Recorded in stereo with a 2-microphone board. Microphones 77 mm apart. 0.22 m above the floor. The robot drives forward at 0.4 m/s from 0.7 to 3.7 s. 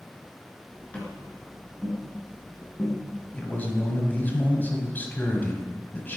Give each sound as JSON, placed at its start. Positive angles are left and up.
{"t": 0.9, "sound": "tapping", "side_deg": 15, "distance_m": 3.0}
{"t": 3.3, "sound": "a man speaking", "side_deg": 25, "distance_m": 1.4}